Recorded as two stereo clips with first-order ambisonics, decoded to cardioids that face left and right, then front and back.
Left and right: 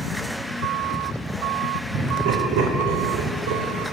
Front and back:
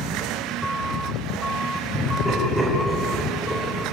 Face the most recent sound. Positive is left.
turn(degrees=-75)